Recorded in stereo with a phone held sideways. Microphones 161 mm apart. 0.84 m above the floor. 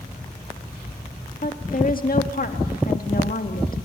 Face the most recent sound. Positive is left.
turn(degrees=60)  # may be behind; listen again after turning